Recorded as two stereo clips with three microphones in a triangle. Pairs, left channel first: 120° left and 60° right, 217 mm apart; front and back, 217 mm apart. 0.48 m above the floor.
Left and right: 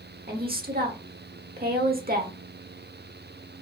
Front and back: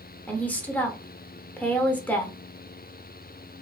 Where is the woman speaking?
80° right, 1.2 m.